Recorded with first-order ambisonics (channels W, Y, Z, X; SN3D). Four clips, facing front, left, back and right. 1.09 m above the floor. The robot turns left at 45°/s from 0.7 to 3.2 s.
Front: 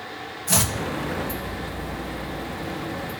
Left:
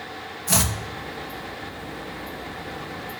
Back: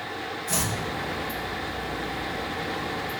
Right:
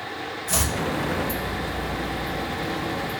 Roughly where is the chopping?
Ahead left.